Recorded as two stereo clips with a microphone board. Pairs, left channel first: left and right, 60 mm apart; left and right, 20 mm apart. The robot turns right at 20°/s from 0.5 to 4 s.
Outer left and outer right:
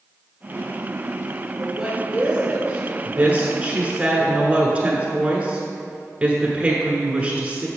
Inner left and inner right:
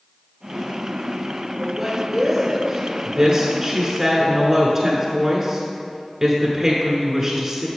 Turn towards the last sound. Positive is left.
turn(degrees=-20)  # may be behind; listen again after turning